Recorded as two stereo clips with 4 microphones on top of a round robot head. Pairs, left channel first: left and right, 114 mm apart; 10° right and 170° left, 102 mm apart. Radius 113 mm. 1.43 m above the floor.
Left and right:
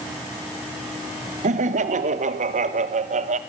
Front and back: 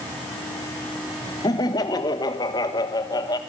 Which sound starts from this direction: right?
Laughter, at 1.4 s.